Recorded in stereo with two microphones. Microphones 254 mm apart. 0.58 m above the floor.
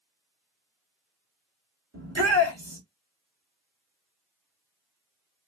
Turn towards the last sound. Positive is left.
turn(degrees=-70)  # may be behind; listen again after turning